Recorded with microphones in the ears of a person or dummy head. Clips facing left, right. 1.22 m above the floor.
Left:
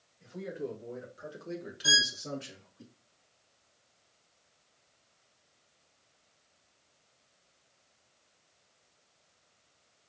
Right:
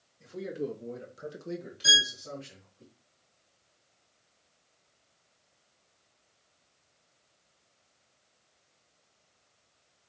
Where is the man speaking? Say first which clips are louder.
Right 3 dB; 55° right (ahead or behind), 2 m; by 2.8 s 70° left (ahead or behind), 1.5 m.